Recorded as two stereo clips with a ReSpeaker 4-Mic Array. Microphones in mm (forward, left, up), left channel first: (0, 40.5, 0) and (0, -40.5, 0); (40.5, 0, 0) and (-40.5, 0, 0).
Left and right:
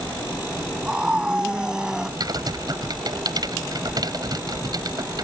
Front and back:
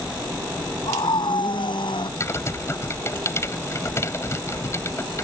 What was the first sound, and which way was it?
A scream, 10° right.